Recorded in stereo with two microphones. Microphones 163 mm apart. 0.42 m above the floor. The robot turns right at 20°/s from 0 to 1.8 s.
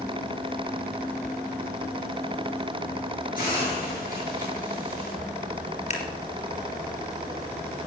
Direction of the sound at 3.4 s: 55° left (ahead or behind).